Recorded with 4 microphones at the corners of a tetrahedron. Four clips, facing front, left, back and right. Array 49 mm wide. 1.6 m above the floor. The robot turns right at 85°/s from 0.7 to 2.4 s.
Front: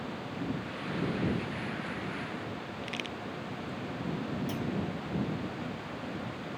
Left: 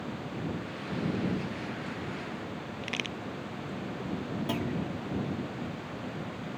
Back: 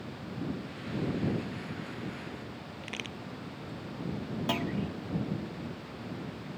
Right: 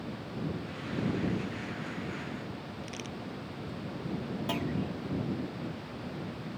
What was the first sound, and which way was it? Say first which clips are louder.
A crack: left 6 dB, front 1 dB; 100° left.